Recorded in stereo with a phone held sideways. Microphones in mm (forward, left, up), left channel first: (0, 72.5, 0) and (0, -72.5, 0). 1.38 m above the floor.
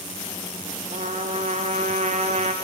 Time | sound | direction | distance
0.9 | a trumpet | 55° right (ahead or behind) | 1.4 m